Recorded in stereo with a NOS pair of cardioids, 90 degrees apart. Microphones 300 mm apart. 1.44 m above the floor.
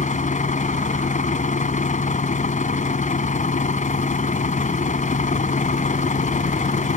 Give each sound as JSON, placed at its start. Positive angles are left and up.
{"t": 0.0, "sound": "a vehicle", "azimuth_deg": 25}